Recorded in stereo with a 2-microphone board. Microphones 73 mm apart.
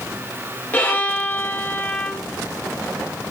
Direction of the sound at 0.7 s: 25° left (ahead or behind).